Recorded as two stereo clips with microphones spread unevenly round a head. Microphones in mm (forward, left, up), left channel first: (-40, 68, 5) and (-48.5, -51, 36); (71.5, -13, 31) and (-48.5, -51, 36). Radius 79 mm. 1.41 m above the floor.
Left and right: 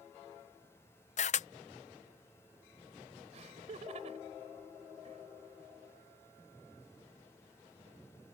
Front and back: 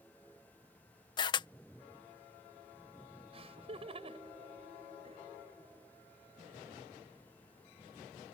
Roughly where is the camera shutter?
Left.